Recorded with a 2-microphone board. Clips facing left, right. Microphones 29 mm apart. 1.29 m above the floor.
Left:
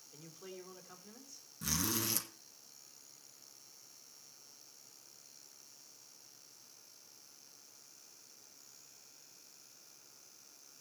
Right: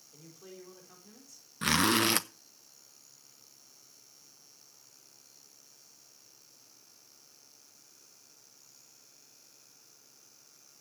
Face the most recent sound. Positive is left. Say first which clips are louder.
# right 11 dB
turn(degrees=-60)  # may be behind; listen again after turning